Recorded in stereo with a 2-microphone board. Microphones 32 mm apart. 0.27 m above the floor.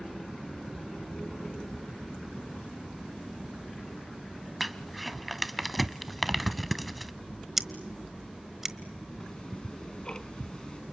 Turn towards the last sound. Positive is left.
turn(degrees=30)  # may be behind; listen again after turning